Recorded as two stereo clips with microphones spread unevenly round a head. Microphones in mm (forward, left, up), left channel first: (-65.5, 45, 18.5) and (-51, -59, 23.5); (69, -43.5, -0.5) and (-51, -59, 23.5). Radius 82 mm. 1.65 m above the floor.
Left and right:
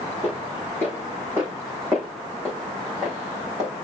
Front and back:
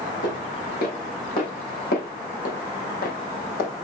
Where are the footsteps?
20° left, 5.5 m; by 3.7 s straight ahead, 4.5 m.